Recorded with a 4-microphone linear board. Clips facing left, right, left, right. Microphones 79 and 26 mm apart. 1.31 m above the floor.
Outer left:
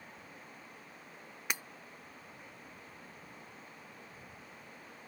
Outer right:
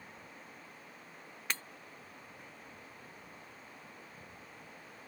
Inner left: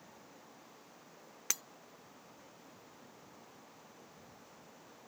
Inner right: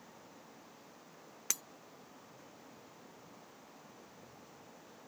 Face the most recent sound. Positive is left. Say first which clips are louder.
# outer left 1 dB, inner left 1 dB
turn(degrees=15)  # may be behind; listen again after turning